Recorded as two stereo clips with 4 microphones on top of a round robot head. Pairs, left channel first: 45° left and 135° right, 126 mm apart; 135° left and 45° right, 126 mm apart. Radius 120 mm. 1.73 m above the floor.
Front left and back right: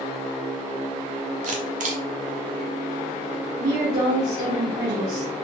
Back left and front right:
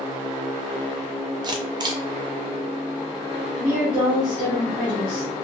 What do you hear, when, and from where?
1.4 s a camera shutter: 105° right, 0.8 m
3.6 s a woman speaking: 120° right, 2.0 m